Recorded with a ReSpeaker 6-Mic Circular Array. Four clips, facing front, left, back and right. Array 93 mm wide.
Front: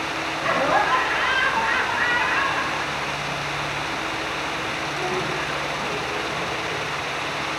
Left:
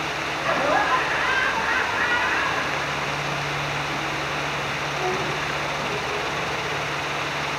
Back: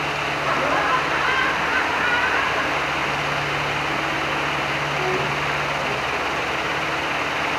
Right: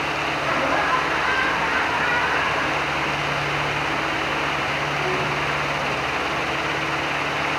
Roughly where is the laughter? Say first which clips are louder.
Left 2 dB, front 2 dB; ahead.